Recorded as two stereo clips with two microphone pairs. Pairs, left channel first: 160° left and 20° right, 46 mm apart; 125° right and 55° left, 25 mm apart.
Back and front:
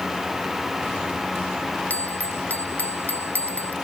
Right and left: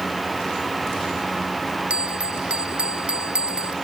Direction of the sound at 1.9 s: 105° left.